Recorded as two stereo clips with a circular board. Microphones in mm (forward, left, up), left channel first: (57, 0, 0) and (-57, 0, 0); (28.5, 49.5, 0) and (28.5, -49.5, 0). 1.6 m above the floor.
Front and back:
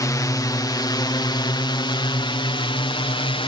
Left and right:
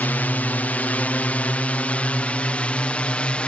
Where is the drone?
30° left; by 3.5 s 15° left.